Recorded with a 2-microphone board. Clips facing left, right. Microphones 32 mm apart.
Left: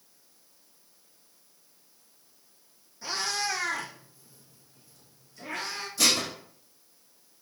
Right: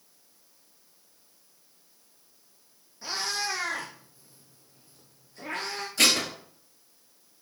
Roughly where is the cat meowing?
Centre.